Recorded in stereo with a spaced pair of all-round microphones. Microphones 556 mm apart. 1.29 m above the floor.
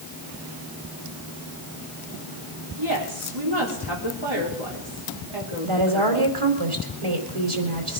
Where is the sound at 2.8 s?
55° right (ahead or behind), 4.5 m.